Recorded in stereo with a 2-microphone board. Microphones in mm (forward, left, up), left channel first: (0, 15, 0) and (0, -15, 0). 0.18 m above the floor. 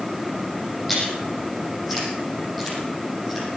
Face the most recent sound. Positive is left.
turn(degrees=0)  # may be behind; listen again after turning